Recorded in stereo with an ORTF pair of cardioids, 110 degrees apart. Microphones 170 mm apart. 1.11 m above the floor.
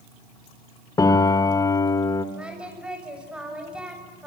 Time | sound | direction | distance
1.0 | a piano | 20° left | 2 m
2.4 | singing | 5° right | 6.5 m